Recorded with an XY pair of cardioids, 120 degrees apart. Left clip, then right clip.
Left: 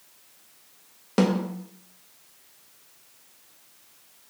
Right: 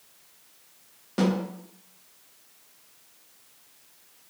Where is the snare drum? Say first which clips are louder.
Left 3 dB; 45° left, 1.0 m.